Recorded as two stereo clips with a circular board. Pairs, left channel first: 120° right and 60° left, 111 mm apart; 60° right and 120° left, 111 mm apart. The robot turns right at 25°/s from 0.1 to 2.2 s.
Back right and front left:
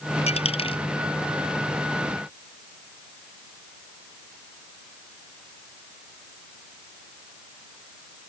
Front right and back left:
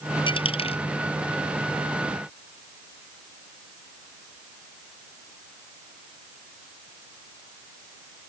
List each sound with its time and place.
0.3 s a dropped coin: 100° right; by 0.8 s 85° right